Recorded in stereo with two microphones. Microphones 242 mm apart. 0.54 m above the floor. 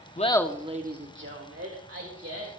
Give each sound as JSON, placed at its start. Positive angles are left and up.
{"t": 0.2, "sound": "laughter", "side_deg": 30, "distance_m": 1.0}